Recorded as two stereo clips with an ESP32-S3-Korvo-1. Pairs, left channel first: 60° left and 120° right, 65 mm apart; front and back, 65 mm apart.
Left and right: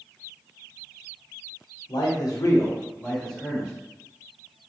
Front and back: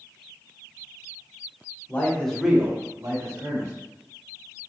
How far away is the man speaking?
About 0.9 m.